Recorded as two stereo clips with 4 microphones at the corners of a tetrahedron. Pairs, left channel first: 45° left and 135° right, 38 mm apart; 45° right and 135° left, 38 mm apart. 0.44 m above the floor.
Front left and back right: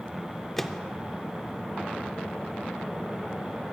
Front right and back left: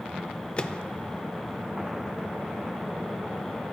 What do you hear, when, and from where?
0.6 s a microwave: 30° right, 0.6 m